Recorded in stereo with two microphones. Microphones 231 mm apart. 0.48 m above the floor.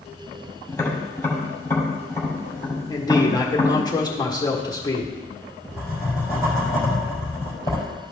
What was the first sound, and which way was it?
Tapping, 10° left (ahead or behind).